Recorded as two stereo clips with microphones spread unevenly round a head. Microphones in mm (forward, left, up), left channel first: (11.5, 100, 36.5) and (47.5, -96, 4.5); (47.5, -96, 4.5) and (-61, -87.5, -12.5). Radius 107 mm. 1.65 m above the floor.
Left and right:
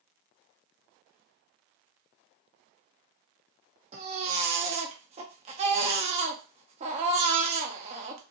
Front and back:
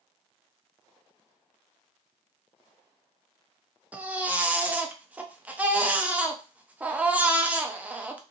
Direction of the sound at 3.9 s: 110° right.